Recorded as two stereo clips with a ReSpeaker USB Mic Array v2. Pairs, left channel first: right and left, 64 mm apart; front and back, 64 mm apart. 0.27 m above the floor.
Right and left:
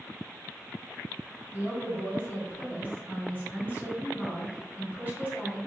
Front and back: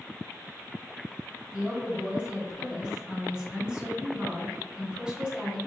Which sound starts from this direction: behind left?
A woman speaking, at 1.5 s.